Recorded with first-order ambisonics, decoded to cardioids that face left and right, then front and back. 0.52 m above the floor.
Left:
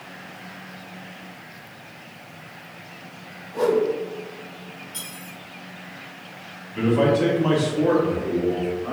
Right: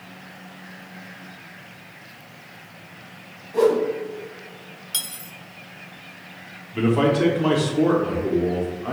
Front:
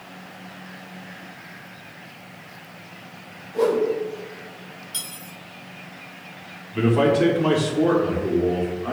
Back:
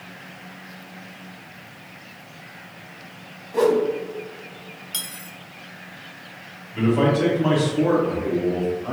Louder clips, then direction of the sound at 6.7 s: Even, front 1 dB; 50° right.